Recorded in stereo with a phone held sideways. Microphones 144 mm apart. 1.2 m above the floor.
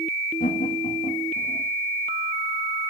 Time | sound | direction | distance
0.4 | laughter | 85° left | 1.6 m